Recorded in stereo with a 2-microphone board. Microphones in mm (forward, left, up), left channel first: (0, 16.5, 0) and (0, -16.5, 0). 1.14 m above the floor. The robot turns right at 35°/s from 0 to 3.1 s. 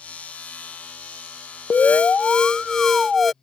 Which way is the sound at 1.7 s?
125° left.